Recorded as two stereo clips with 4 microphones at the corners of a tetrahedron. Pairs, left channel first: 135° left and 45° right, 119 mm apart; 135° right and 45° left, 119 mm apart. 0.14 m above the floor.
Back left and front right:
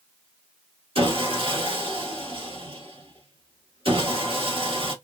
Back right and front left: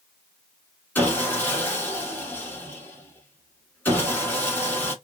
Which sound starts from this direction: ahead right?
Sawing, at 0.9 s.